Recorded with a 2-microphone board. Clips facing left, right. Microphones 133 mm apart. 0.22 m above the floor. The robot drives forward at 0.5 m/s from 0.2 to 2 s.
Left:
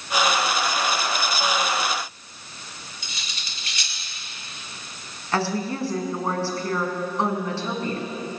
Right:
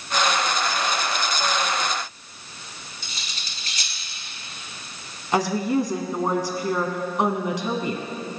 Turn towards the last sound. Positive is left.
turn(degrees=-15)  # may be behind; listen again after turning